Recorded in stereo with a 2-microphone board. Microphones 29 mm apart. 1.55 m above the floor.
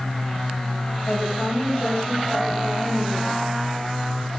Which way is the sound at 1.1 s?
50° left (ahead or behind).